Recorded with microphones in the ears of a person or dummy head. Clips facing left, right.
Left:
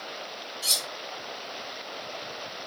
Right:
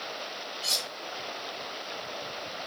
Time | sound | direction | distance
0.6 | cutlery clinking | 10° left (ahead or behind) | 0.7 m